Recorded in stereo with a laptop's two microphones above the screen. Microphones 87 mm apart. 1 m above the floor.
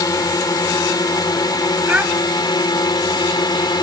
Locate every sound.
0.0 s a drone: 45° left (ahead or behind); by 3.8 s 55° left (ahead or behind)
1.9 s a child speaking: 15° right (ahead or behind)